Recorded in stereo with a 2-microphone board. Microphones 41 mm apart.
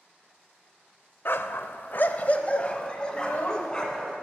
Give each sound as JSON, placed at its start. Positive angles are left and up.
{"t": 1.2, "sound": "a dog barking", "side_deg": 55, "distance_m": 0.5}
{"t": 3.1, "sound": "a child speaking", "side_deg": 50, "distance_m": 1.1}